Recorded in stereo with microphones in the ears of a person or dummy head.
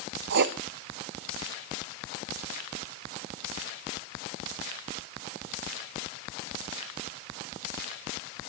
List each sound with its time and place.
0.3 s writing: 60° right (ahead or behind), 1.1 m